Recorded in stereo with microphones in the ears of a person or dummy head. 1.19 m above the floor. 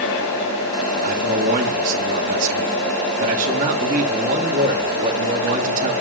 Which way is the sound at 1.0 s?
45° right (ahead or behind).